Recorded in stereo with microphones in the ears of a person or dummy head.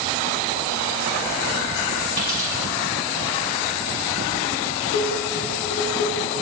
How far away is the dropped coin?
About 2 m.